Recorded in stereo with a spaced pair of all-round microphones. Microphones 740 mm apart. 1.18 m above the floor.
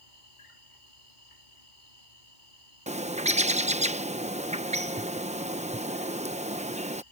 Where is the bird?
10° right (ahead or behind).